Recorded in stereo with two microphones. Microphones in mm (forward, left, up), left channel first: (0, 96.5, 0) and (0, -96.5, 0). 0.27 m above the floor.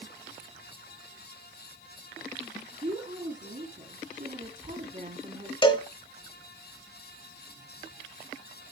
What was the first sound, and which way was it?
A woman speaking, 45° right (ahead or behind).